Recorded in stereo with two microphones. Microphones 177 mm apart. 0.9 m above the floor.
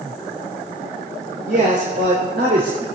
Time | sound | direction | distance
1.5 | a man speaking | 80° right | 3 m